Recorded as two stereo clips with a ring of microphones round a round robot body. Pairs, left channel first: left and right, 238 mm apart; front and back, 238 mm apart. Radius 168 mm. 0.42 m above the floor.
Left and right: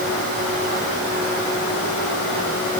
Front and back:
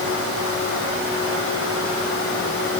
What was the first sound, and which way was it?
Only background noise.